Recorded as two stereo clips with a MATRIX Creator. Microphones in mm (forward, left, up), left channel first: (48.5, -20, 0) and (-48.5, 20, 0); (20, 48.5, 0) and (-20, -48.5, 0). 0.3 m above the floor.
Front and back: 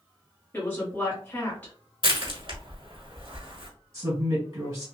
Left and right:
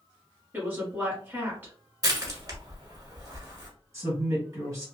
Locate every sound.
0.5 s a woman speaking: 65° right, 1.5 m
2.0 s crushing: 165° right, 1.2 m
3.9 s a woman speaking: 160° right, 1.9 m